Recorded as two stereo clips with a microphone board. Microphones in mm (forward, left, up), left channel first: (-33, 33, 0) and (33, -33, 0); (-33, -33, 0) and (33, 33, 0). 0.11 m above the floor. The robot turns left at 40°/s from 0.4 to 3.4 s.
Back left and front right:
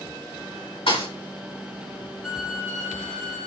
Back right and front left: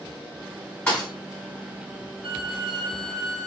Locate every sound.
0.9 s a thud: 150° left, 4.5 m; by 1.1 s 140° left, 4.5 m
2.2 s a violin: 35° left, 1.9 m; by 3.5 s 10° right, 1.9 m